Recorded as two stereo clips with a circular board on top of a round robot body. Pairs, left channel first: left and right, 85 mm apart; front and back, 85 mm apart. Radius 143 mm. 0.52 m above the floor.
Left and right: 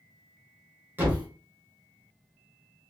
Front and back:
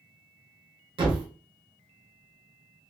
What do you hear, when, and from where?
1.0 s a thud: 155° right, 1.4 m